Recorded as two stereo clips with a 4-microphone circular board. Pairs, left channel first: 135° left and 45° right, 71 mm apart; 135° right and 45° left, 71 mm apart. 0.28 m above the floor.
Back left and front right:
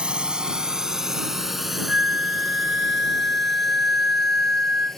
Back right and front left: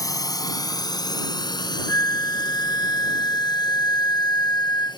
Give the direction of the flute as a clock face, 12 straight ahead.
4 o'clock.